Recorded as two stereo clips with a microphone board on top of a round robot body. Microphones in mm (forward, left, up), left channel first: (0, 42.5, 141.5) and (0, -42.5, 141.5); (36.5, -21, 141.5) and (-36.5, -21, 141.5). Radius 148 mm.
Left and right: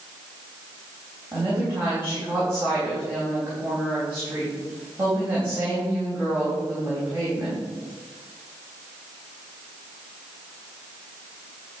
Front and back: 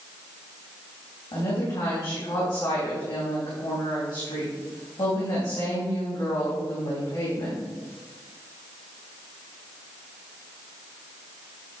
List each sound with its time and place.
1.3 s a woman speaking: 30° right, 4 m